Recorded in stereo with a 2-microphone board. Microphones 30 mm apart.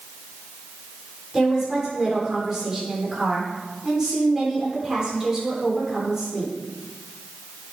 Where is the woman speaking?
15° right (ahead or behind), 4.5 m.